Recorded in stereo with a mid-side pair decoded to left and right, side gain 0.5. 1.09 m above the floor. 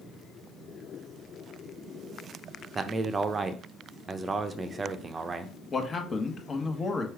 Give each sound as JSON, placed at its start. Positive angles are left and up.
{"t": 2.8, "sound": "a man speaking", "azimuth_deg": -35, "distance_m": 0.6}
{"t": 5.7, "sound": "a man speaking", "azimuth_deg": 30, "distance_m": 1.0}